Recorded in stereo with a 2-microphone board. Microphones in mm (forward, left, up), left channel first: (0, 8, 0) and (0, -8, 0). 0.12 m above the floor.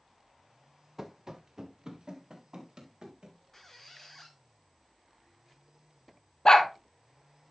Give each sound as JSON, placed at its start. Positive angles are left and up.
{"t": 1.0, "sound": "running footsteps", "side_deg": -25, "distance_m": 0.7}
{"t": 3.5, "sound": "a squeak", "side_deg": 25, "distance_m": 1.0}
{"t": 6.5, "sound": "a dog barking", "side_deg": 60, "distance_m": 1.0}